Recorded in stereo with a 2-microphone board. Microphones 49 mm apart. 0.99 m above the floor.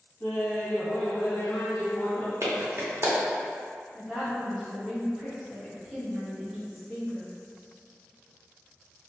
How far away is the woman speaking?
About 1.2 m.